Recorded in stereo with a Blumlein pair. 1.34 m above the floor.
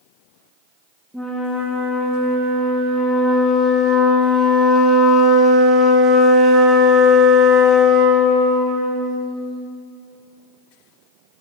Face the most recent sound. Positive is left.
turn(degrees=-5)